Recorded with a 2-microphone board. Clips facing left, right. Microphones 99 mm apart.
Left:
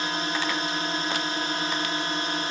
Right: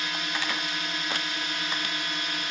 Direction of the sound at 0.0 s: 35° left (ahead or behind).